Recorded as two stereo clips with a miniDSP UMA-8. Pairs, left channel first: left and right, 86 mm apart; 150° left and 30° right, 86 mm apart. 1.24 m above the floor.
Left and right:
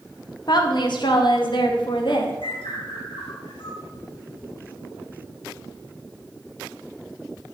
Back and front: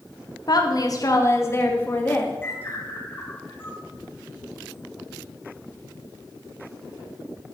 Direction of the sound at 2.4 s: 85° left.